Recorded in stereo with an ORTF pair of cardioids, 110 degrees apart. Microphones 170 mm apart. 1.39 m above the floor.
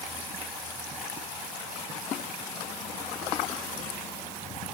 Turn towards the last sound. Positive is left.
No sound to turn to.